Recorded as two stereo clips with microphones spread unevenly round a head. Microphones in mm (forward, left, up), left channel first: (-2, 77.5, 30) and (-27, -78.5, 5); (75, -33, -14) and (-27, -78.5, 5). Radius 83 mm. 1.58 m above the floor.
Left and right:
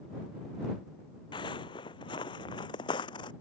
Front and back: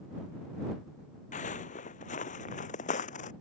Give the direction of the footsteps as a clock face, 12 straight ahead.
11 o'clock.